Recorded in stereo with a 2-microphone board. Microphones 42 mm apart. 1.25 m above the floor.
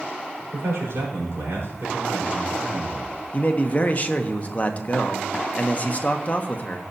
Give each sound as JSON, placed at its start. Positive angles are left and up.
{"t": 0.5, "sound": "a man speaking", "side_deg": -90, "distance_m": 4.0}
{"t": 3.3, "sound": "a man speaking", "side_deg": 35, "distance_m": 0.8}